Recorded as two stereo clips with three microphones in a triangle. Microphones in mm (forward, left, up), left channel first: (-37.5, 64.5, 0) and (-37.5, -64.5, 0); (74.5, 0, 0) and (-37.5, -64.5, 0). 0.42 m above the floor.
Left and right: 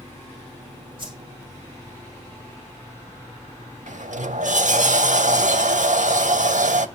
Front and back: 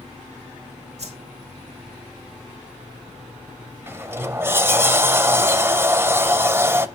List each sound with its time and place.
1.0 s a whoosh: 135° right, 2 m
3.9 s a sliding door: 75° right, 0.6 m